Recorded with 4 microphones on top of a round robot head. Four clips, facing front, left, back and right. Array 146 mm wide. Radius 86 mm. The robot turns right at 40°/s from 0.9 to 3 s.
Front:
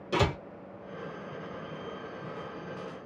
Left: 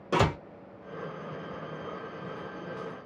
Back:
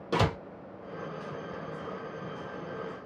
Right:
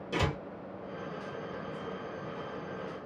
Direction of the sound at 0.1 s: 120° left.